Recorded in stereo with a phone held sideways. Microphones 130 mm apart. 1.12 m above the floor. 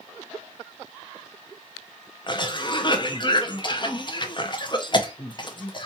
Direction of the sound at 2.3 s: 35° left (ahead or behind).